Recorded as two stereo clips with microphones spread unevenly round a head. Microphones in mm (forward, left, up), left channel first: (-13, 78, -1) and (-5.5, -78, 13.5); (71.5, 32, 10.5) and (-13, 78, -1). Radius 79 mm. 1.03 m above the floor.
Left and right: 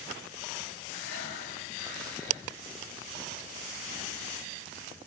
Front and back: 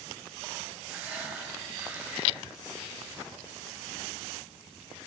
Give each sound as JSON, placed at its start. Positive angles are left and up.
{"t": 0.9, "sound": "breathing", "azimuth_deg": 75, "distance_m": 5.0}